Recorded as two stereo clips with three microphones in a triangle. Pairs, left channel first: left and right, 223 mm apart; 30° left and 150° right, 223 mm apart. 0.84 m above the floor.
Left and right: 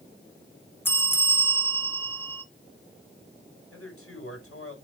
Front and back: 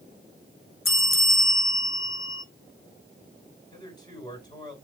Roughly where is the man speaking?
Left.